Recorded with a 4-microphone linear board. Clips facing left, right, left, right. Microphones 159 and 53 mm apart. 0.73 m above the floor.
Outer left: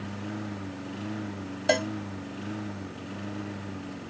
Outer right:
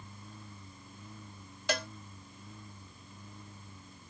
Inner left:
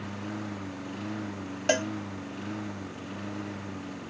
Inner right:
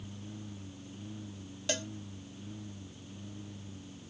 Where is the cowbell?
50° left (ahead or behind).